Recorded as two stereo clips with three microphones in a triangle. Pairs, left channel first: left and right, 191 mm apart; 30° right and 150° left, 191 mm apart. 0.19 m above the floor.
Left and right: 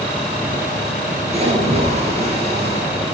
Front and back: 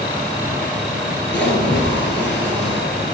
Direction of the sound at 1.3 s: 35° right.